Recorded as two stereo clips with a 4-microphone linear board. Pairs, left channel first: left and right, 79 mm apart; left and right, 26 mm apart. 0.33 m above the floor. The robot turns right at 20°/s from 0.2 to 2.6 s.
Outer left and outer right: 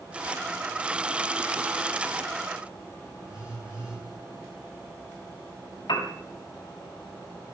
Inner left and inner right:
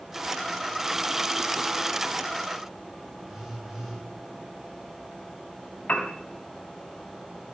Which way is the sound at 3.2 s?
15° right (ahead or behind).